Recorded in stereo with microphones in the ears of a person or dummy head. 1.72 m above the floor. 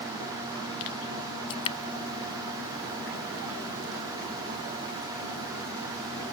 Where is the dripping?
30° left (ahead or behind).